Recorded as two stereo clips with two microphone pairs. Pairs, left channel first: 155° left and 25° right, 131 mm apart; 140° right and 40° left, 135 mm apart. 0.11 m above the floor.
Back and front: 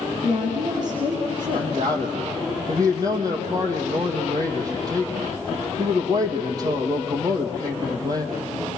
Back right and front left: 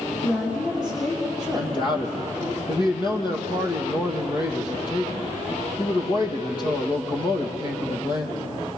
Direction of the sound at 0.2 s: 75° right.